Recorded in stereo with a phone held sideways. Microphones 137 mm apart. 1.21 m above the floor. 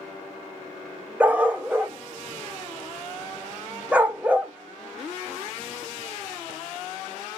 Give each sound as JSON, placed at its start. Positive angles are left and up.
{"t": 1.2, "sound": "a dog barking", "side_deg": -10, "distance_m": 0.5}